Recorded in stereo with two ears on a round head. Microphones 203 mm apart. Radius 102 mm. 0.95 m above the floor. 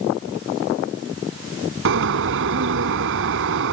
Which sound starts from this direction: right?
A bird, at 1.9 s.